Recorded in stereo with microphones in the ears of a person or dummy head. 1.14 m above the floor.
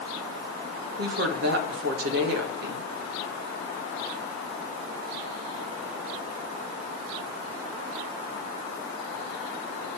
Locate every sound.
1.0 s a woman speaking: 60° right (ahead or behind), 1.4 m